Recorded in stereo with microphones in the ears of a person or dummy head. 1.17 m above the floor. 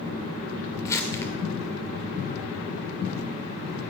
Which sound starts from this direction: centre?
Crumpling, at 0.8 s.